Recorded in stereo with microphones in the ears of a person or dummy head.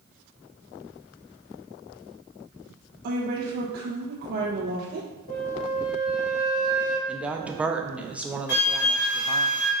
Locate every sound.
3.0 s a woman speaking: 55° right (ahead or behind), 1.1 m
5.3 s a flute: 65° left (ahead or behind), 2.5 m
7.1 s a woman speaking: 5° right (ahead or behind), 0.6 m
8.5 s a flute: 55° left (ahead or behind), 2.0 m